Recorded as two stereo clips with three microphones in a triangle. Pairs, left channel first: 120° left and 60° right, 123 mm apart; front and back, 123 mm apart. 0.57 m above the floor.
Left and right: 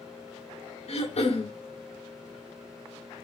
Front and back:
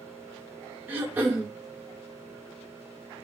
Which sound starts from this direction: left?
Throat clearing, at 0.9 s.